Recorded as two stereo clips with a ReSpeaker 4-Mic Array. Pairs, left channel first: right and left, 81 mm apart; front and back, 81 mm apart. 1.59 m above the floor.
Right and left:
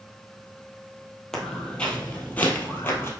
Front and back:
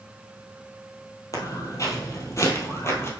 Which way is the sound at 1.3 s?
10° right.